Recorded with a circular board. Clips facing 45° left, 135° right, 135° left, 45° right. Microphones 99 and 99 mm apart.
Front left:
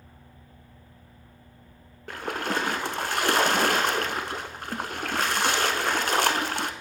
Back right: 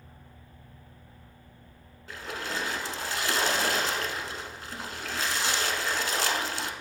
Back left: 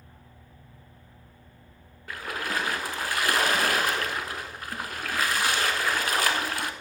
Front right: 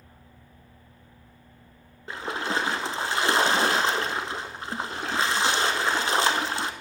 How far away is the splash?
About 0.6 m.